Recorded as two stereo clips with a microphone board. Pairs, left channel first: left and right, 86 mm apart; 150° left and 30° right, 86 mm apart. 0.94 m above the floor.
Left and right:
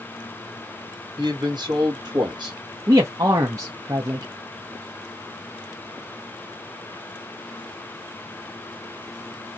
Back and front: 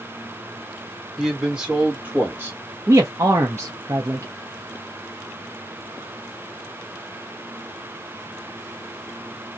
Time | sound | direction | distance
1.2 | a man speaking | 115° right | 1.9 m
2.9 | a man speaking | 70° right | 0.6 m